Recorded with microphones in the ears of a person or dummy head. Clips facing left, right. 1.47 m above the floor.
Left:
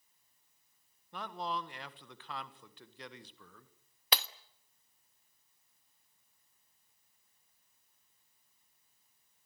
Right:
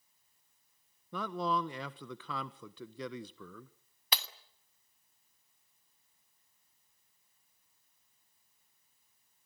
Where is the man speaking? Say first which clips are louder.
Right 6 dB; 85° right, 1.2 m.